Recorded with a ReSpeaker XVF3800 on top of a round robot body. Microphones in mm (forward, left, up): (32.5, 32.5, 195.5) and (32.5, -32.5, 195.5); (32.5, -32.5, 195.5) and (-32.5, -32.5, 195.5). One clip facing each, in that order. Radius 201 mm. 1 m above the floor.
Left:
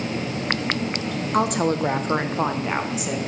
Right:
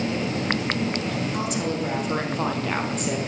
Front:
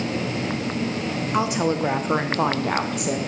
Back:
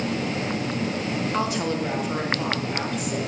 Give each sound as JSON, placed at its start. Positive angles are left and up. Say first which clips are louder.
{"t": 1.3, "sound": "a woman speaking", "louder": "left 5 dB, front 6 dB", "azimuth_deg": 75, "distance_m": 1.6}